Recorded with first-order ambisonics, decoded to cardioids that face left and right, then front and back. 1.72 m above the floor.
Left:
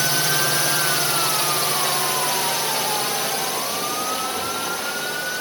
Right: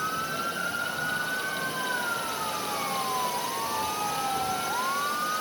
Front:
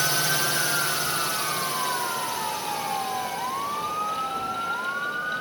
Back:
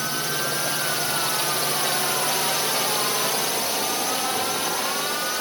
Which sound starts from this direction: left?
A drone, at 0.0 s.